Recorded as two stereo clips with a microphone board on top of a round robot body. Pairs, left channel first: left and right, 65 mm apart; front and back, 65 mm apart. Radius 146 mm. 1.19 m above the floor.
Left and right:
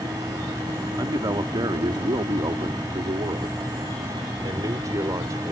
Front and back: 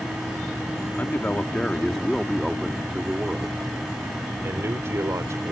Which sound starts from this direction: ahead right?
A man speaking, at 1.0 s.